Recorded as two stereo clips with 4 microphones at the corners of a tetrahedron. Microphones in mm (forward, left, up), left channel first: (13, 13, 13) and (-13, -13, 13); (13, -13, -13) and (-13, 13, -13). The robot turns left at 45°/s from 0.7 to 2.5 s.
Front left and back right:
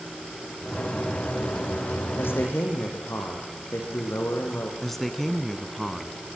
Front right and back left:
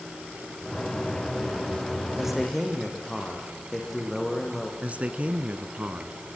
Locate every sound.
2.2 s a man speaking: 55° left, 7 m; by 4.7 s 40° left, 7 m
4.8 s a man speaking: 125° left, 1.6 m